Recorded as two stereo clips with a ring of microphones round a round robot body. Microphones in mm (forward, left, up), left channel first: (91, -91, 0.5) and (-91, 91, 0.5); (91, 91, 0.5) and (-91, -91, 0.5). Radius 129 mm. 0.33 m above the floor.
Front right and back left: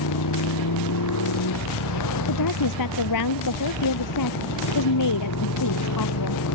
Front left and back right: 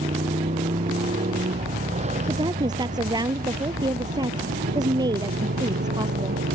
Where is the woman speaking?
60° right.